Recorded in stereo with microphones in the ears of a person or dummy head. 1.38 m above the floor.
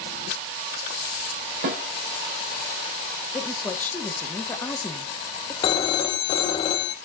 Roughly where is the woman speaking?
Centre.